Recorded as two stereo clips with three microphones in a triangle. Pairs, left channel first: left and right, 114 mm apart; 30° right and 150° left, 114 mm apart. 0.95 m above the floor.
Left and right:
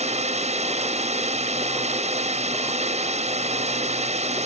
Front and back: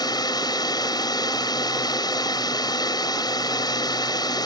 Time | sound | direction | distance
0.0 | a drone | 85° right | ?